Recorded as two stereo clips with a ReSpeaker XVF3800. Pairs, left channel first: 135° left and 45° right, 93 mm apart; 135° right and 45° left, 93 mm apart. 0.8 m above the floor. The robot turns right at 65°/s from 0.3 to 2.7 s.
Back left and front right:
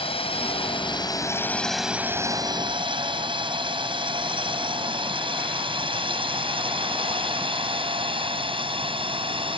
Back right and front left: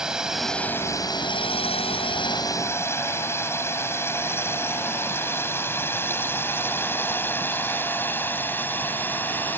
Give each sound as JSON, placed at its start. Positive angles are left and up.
{"t": 0.0, "sound": "a drone", "azimuth_deg": 130}